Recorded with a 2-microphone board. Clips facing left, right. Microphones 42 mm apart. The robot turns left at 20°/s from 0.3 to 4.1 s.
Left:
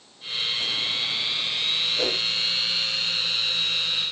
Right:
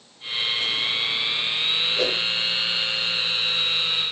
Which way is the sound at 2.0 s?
20° right (ahead or behind).